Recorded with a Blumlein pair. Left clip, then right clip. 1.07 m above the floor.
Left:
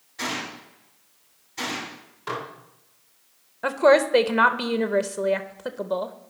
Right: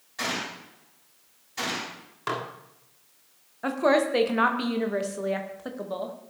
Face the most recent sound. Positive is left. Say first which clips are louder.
# left 5 dB
turn(degrees=15)